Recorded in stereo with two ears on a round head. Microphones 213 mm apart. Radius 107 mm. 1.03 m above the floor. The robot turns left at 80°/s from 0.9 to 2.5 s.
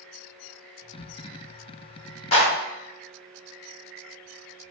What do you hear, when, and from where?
2.3 s a clap: 25° left (ahead or behind), 1.2 m; by 2.5 s 10° left (ahead or behind), 1.2 m